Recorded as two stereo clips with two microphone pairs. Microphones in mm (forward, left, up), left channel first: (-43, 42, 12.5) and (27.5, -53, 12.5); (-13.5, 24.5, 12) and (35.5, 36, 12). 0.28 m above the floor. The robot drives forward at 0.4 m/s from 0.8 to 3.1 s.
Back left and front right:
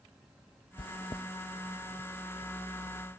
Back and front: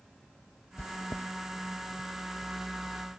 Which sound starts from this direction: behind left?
Chewing, at 0.8 s.